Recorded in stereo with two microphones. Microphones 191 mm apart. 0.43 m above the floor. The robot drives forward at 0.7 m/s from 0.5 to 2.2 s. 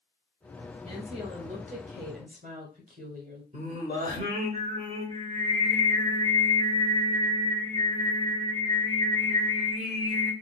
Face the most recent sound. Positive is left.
turn(degrees=-40)  # may be behind; listen again after turning